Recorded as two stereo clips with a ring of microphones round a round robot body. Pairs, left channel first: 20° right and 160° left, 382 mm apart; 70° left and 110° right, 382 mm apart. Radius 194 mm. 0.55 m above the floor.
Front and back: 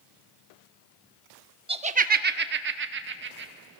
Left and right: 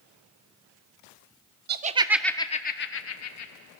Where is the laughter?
140° right, 0.8 m; by 3.5 s 100° left, 1.3 m.